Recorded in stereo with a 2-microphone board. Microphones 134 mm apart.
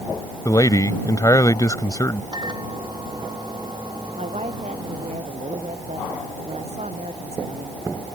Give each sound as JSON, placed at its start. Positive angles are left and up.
{"t": 0.5, "sound": "a man speaking", "side_deg": 30}
{"t": 2.3, "sound": "a microwave", "side_deg": -35}
{"t": 4.2, "sound": "a woman speaking", "side_deg": -55}